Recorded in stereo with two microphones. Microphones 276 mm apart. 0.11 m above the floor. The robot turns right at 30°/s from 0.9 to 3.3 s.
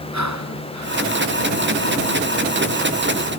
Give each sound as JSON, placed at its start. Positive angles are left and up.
{"t": 0.1, "sound": "breathing", "side_deg": -80}